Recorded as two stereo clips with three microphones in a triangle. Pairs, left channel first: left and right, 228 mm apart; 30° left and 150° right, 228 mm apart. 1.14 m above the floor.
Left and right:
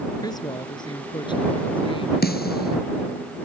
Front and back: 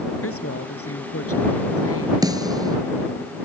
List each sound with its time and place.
0.2 s a woman speaking: 15° left; by 2.9 s 25° left
2.2 s a snare drum: 135° left